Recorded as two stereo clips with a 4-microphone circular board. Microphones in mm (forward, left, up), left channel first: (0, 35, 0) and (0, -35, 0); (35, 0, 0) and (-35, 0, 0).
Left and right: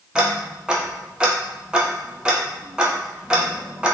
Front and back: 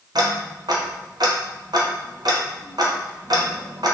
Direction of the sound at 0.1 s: 170° right.